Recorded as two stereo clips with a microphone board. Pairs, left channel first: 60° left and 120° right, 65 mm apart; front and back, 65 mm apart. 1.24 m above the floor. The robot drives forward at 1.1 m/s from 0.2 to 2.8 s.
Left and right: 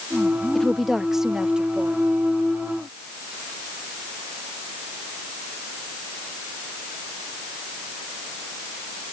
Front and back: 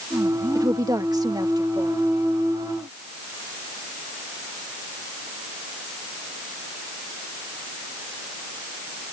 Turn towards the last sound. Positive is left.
turn(degrees=170)